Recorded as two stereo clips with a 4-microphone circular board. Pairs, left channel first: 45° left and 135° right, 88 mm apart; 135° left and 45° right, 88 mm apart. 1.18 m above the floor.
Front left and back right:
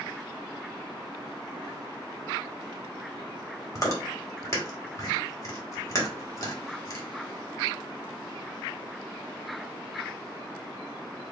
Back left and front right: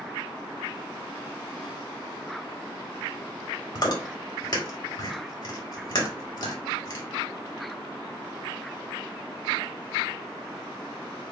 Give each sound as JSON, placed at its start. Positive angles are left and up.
{"t": 3.8, "sound": "chewing", "azimuth_deg": 100, "distance_m": 1.8}